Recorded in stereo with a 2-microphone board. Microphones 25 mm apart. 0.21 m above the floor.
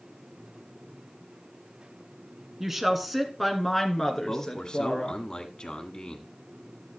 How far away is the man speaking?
About 1.5 m.